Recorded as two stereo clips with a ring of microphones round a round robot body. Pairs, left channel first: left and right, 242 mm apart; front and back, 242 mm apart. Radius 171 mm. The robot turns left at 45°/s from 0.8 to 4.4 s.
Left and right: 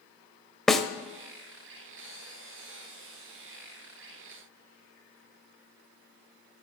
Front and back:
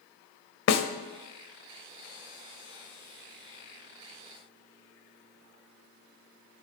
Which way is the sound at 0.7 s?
Straight ahead.